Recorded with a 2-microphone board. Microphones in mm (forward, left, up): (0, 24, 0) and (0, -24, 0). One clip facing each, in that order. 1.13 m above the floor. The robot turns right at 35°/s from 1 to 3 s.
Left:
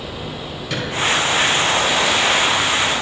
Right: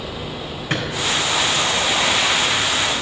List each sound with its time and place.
0.7 s a drawer: 40° right (ahead or behind), 4.5 m